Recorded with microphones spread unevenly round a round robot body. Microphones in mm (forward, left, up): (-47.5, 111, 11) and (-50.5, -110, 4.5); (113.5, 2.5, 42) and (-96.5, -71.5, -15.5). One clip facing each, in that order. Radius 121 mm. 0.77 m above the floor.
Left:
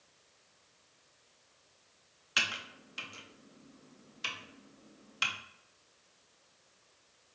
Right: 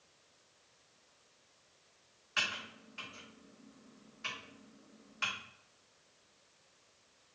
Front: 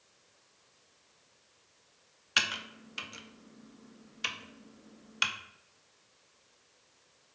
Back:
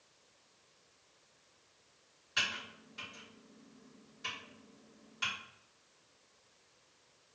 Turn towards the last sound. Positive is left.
turn(degrees=40)